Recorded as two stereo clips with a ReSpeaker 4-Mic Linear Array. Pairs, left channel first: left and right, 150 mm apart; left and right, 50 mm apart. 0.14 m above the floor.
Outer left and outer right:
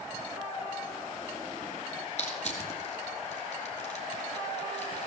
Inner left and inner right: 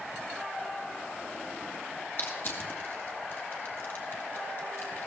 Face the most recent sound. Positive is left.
turn(degrees=50)  # may be behind; listen again after turning